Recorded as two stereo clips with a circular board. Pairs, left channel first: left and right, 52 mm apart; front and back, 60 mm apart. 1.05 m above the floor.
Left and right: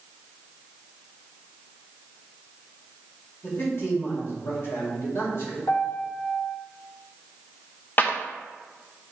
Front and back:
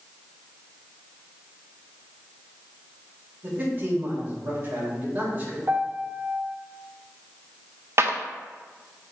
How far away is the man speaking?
About 2.5 m.